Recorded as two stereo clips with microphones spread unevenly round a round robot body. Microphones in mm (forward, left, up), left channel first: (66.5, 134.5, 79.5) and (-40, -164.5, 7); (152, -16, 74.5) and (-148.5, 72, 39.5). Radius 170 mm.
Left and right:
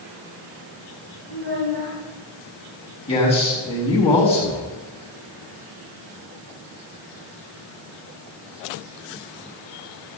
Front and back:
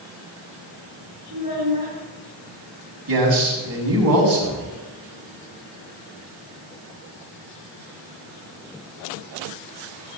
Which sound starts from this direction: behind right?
A child speaking, at 1.3 s.